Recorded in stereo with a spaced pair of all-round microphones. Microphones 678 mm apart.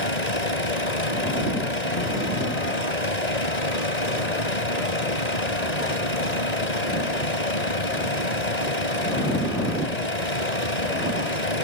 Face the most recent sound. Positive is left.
turn(degrees=70)  # may be behind; listen again after turning